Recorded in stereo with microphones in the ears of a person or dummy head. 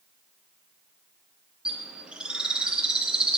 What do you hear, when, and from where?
1.6 s a bird: 5° right (ahead or behind), 0.6 m